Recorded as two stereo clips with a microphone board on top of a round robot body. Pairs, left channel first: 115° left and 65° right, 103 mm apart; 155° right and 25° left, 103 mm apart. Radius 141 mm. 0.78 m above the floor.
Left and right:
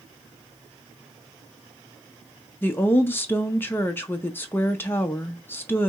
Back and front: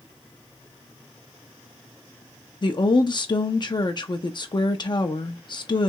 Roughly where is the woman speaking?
Behind.